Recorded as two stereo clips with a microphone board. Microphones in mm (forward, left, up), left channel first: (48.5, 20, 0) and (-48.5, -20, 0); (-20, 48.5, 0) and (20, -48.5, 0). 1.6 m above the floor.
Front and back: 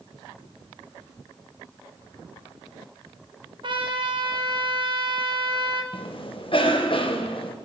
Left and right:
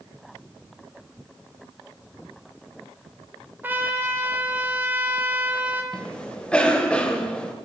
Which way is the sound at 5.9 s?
35° left.